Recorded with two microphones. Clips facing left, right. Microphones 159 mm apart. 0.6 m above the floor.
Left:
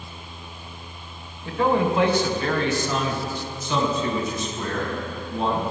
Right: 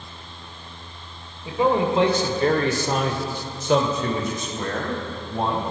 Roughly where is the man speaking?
Centre.